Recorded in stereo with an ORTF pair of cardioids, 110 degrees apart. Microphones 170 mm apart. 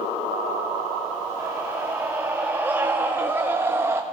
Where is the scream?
10° right, 2.5 m; by 4.0 s 15° right, 1.3 m.